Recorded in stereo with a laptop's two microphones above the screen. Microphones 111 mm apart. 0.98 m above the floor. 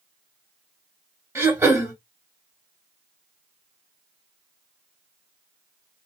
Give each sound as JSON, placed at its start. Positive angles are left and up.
{"t": 1.4, "sound": "throat clearing", "side_deg": -25, "distance_m": 1.3}